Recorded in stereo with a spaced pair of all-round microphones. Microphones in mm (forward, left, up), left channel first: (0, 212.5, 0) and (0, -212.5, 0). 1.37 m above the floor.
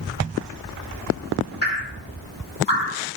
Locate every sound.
1.6 s dripping: 85° left, 6.5 m